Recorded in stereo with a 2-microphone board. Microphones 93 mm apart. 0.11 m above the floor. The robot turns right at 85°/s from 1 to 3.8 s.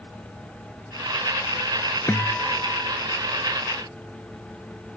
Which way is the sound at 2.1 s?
145° left.